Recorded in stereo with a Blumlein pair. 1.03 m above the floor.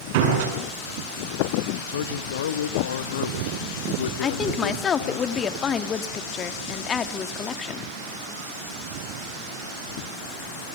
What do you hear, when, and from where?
0.1 s a door slam: 50° right, 8 m
1.9 s a man speaking: 60° left, 1.3 m
4.2 s a woman speaking: 25° left, 1.6 m